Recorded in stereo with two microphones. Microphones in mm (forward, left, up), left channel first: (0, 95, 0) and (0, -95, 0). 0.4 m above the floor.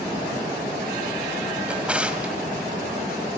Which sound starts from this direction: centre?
A drawer, at 1.7 s.